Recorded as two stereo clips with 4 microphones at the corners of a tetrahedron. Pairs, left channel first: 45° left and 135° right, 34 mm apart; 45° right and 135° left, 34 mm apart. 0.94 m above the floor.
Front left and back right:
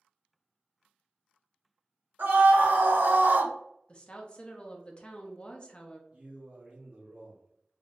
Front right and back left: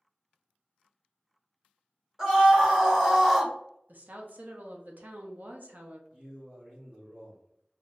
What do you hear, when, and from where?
2.2 s a scream: 145° right, 1.5 m; by 3.5 s 140° right, 0.5 m
3.9 s a woman speaking: 105° left, 0.8 m
6.1 s a man speaking: straight behind, 1.0 m